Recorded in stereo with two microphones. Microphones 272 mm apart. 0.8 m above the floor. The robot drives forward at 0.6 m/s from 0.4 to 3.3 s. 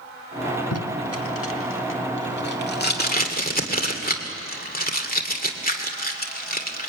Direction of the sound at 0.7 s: 65° left (ahead or behind).